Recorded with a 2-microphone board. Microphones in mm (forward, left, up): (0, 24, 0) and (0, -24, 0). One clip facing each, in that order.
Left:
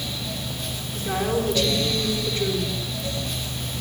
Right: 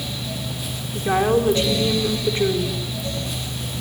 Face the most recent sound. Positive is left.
turn(degrees=-30)  # may be behind; listen again after turning